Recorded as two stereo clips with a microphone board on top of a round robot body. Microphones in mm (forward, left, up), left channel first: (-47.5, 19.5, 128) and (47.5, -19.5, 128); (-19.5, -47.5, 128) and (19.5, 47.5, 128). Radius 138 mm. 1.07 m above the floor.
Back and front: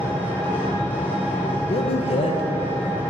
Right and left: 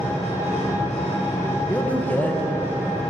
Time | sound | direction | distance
0.0 | an engine running | 130° right | 2.5 m
1.7 | a man speaking | 175° left | 1.1 m